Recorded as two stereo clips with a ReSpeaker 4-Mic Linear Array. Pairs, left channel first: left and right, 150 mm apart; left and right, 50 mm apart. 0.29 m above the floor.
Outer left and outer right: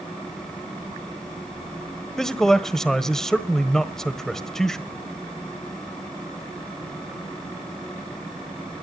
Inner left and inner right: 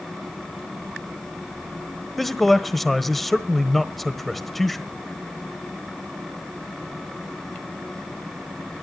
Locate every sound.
2.2 s a man speaking: 5° left (ahead or behind), 1.2 m